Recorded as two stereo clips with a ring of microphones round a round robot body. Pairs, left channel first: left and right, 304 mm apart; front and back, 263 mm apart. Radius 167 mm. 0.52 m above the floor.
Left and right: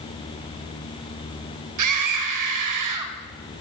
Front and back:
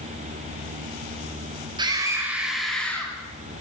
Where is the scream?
105° right, 3.5 m; by 3.1 s 80° right, 3.5 m.